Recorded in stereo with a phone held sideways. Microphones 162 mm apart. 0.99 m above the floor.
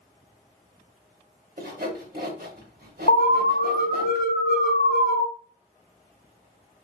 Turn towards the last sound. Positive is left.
turn(degrees=70)  # may be behind; listen again after turning